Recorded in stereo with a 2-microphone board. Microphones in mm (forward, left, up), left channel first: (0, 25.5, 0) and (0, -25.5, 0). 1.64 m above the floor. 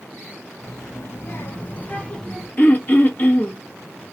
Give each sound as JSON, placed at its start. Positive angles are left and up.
{"t": 0.6, "sound": "a child speaking", "side_deg": 65, "distance_m": 1.8}
{"t": 2.6, "sound": "throat clearing", "side_deg": 40, "distance_m": 1.3}